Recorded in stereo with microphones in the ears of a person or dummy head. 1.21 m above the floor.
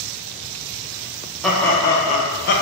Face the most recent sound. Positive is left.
turn(degrees=60)  # may be behind; listen again after turning